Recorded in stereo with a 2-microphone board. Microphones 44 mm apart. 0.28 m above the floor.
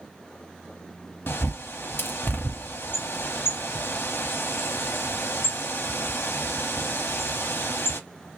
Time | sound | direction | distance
1.3 | a bird | 55° left (ahead or behind) | 0.6 m